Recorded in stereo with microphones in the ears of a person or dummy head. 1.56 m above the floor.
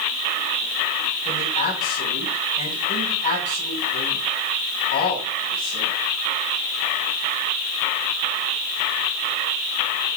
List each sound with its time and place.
1.2 s a man speaking: 50° left (ahead or behind), 5 m